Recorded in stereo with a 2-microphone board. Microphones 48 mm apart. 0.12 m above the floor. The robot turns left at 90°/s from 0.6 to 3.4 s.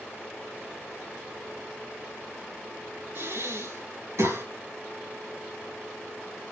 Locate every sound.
3.1 s breathing: 50° right (ahead or behind), 4 m; by 4.4 s 70° right (ahead or behind), 4 m